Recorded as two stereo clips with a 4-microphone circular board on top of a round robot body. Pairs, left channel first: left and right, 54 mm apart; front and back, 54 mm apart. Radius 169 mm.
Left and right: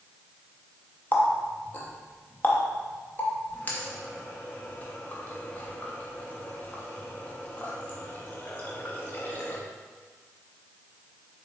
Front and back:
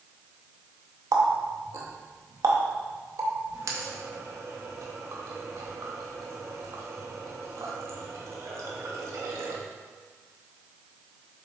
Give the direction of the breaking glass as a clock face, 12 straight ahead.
No breaking glass in this recording.